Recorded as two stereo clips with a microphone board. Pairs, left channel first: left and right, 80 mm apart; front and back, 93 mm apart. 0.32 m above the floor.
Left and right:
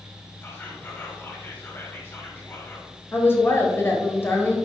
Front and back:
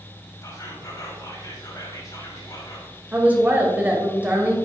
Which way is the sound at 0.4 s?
35° left.